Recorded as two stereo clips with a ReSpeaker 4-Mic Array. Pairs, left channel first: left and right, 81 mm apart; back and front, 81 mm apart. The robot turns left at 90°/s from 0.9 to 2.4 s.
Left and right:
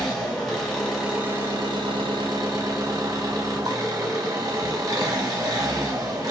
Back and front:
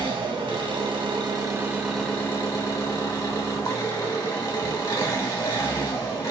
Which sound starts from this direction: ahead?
An engine running, at 0.0 s.